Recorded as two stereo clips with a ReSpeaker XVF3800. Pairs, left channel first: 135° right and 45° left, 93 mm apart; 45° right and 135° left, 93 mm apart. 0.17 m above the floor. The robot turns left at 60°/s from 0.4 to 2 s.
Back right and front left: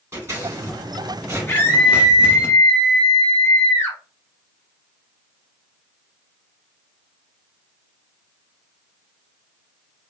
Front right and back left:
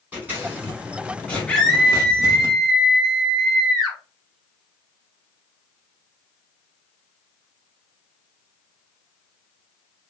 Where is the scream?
110° right, 1.0 m; by 4.0 s 140° right, 1.0 m.